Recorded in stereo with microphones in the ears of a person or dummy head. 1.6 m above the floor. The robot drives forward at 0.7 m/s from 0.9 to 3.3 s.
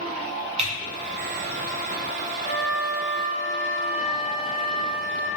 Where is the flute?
45° right (ahead or behind), 1.8 m; by 5.3 s 35° right (ahead or behind), 2 m.